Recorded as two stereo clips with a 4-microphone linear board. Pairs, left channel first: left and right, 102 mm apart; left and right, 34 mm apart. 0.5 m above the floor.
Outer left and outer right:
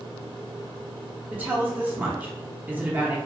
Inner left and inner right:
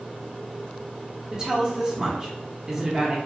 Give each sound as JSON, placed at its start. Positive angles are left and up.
{"t": 1.3, "sound": "a woman speaking", "side_deg": -20, "distance_m": 0.7}